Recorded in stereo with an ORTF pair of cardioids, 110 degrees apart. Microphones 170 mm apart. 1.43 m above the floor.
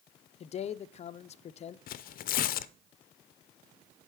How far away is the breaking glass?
I don't hear breaking glass.